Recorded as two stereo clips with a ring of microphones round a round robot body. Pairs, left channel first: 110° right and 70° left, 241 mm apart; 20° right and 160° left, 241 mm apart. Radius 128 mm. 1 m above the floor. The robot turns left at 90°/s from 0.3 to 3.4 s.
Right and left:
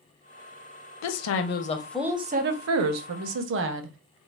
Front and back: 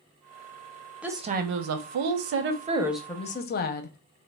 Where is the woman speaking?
115° right, 0.5 m; by 4.0 s 30° left, 0.5 m.